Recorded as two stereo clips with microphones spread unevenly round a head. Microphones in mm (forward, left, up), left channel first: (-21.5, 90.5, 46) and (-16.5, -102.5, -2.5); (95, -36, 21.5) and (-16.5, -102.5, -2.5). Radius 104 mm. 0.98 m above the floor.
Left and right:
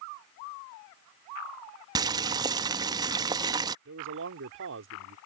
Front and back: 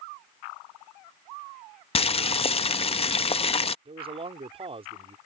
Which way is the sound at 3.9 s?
105° right.